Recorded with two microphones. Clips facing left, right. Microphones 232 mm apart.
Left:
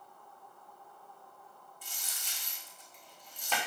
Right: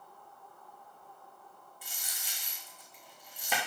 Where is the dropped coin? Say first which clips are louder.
Right 1 dB; 10° right (ahead or behind), 2.5 m.